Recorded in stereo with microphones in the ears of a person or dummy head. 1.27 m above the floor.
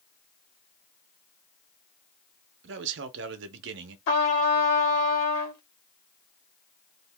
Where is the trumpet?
75° left (ahead or behind), 1.2 m.